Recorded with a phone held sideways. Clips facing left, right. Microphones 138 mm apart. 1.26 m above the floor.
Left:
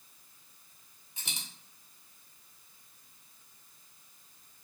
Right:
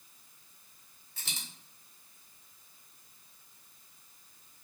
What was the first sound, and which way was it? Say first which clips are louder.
A dropped coin: left 1 dB; 15° left (ahead or behind).